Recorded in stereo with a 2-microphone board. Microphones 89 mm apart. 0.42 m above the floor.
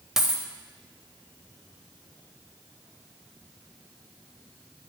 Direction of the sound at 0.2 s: 5° right (ahead or behind).